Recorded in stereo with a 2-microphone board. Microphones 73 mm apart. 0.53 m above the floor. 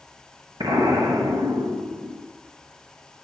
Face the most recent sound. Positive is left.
turn(degrees=-80)